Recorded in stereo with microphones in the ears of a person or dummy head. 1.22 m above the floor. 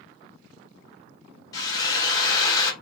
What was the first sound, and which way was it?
A drill, 20° left (ahead or behind).